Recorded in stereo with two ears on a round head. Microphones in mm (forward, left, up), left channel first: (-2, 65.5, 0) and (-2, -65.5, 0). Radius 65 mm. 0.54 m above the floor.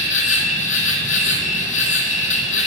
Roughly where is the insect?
Left.